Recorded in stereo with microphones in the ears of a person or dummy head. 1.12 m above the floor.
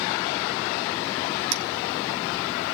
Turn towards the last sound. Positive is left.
turn(degrees=-60)  # may be behind; listen again after turning